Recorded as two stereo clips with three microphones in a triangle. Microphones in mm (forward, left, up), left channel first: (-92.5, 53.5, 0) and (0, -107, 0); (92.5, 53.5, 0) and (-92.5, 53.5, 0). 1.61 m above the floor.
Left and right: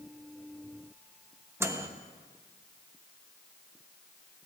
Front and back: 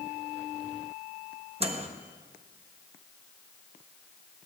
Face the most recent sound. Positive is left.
turn(degrees=-135)